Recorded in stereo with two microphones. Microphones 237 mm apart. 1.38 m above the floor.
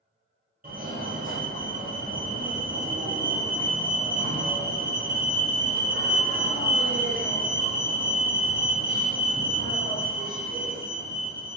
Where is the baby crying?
I don't hear a baby crying.